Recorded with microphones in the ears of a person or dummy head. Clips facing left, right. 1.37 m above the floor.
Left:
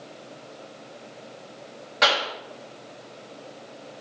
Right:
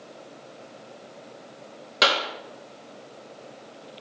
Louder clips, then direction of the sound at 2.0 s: Even; 40° right (ahead or behind).